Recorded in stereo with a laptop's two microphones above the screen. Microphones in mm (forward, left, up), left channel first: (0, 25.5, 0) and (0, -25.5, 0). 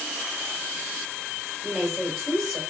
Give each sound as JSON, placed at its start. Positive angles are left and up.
{"t": 1.6, "sound": "a woman speaking", "side_deg": 0, "distance_m": 4.0}